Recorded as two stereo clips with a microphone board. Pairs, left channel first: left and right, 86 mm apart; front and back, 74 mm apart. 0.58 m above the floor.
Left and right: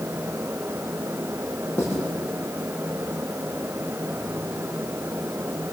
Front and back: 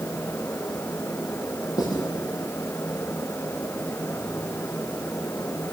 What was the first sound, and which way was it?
Writing, 30° left.